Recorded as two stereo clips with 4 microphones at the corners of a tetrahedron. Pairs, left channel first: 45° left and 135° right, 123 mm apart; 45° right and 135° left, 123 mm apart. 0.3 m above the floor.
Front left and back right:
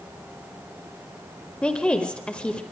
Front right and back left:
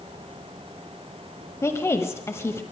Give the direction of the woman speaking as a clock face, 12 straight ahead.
1 o'clock.